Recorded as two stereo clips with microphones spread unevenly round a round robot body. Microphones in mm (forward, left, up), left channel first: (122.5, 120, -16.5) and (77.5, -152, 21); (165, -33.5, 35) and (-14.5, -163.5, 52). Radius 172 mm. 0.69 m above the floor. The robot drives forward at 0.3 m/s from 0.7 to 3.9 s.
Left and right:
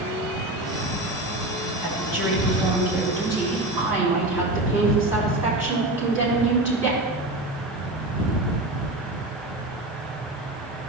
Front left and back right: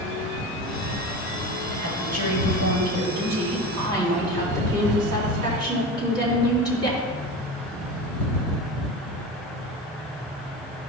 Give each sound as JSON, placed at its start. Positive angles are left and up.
{"t": 1.8, "sound": "a woman speaking", "azimuth_deg": 175, "distance_m": 3.0}